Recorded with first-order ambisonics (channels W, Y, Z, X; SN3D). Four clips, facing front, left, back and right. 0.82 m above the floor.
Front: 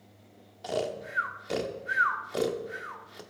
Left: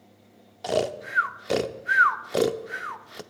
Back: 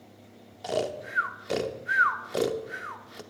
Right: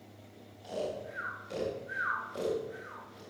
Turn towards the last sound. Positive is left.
turn(degrees=100)